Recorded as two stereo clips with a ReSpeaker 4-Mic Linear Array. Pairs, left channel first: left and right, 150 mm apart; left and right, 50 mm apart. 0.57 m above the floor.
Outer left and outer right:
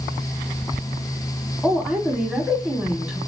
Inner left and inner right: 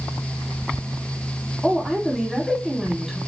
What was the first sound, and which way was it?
A woman speaking, centre (ahead or behind).